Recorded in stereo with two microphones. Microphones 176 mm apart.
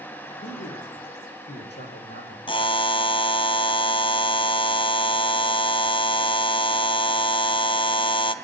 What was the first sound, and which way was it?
A man speaking, 75° left (ahead or behind).